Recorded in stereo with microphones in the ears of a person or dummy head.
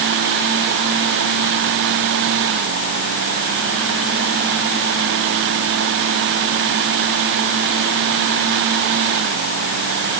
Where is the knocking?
No knocking in this recording.